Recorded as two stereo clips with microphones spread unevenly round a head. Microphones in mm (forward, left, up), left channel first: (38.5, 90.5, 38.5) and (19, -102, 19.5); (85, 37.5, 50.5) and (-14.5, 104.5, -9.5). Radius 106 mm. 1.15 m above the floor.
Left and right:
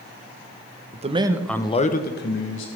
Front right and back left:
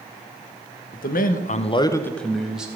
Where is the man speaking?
50° right, 1.2 m; by 2.7 s 70° left, 1.8 m.